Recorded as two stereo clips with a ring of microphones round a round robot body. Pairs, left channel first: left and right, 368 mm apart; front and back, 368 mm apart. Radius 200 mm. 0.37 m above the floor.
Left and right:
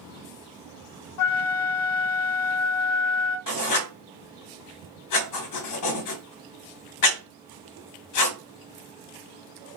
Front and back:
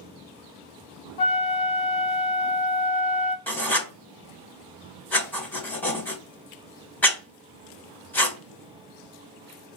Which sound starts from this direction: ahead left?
A flute, at 1.2 s.